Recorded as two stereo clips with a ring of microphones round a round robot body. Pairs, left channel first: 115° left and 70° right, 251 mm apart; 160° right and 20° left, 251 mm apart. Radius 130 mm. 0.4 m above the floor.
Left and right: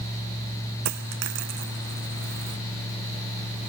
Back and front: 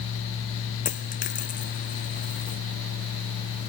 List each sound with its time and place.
0.8 s a dropped coin: 95° right